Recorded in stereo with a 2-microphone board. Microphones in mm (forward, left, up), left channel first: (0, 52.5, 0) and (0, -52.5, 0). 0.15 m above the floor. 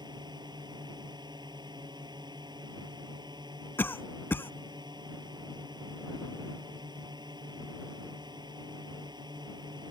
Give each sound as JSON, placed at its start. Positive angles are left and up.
{"t": 0.0, "sound": "a drone", "side_deg": -45}
{"t": 3.8, "sound": "a cough", "side_deg": 20}